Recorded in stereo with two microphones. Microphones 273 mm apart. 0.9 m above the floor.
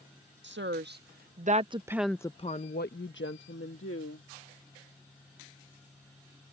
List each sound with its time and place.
0.4 s a woman speaking: 45° right (ahead or behind); by 4.3 s 50° left (ahead or behind)